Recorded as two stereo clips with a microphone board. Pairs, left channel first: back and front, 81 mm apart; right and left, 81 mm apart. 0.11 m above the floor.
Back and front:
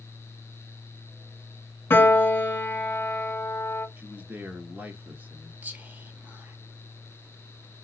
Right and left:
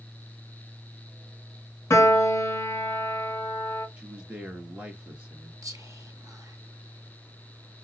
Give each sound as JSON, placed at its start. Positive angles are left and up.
{"t": 1.9, "sound": "a piano", "azimuth_deg": -130, "distance_m": 1.0}
{"t": 4.0, "sound": "a man speaking", "azimuth_deg": 35, "distance_m": 1.2}
{"t": 5.6, "sound": "whispering", "azimuth_deg": 60, "distance_m": 1.7}